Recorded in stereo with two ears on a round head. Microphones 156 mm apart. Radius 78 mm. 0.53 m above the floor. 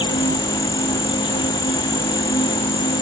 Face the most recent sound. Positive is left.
turn(degrees=30)  # may be behind; listen again after turning